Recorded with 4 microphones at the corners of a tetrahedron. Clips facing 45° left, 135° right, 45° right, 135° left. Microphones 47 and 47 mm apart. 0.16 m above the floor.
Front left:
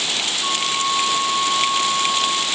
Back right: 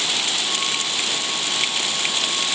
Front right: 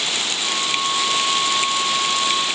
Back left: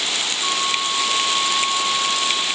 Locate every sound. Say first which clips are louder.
0.4 s a flute: front left 3 dB, back left 1 dB; 60° left, 4.5 m